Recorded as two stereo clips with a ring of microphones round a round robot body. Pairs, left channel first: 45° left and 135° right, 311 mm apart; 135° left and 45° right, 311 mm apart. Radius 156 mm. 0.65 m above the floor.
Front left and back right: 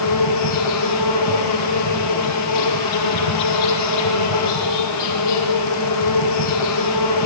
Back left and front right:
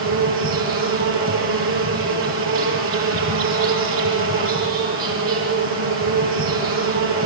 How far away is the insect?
About 5.5 m.